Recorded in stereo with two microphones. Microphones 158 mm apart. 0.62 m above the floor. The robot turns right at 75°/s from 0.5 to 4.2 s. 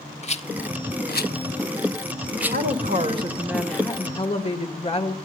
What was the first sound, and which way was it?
A rattle, 45° left (ahead or behind).